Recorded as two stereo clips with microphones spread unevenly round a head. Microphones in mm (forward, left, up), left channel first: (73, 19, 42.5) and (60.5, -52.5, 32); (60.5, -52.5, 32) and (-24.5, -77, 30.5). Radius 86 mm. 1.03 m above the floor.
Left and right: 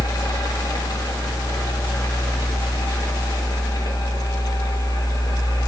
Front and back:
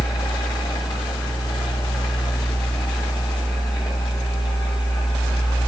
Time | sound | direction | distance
0.0 | a fan | 60° left | 1.8 m